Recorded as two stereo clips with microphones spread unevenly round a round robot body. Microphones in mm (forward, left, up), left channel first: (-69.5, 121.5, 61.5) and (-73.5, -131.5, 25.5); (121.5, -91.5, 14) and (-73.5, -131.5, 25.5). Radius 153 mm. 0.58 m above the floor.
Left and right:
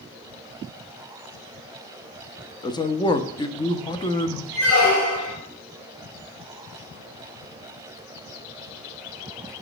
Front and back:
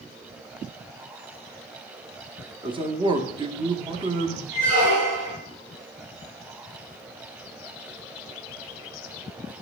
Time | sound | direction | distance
2.6 | a man speaking | 160° left | 0.6 m
4.5 | a squeak | 115° left | 3.5 m